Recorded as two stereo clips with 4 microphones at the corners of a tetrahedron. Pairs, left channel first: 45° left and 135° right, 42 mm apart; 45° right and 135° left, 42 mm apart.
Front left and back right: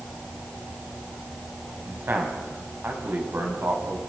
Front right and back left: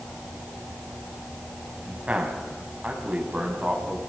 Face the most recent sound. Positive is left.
turn(degrees=-160)